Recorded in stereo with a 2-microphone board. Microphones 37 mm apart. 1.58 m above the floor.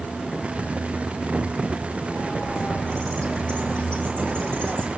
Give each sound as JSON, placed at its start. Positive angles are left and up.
{"t": 2.1, "sound": "a bird", "side_deg": 30, "distance_m": 5.0}